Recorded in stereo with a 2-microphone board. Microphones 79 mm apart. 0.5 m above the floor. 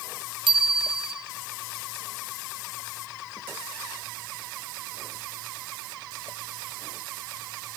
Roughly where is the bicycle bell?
Right.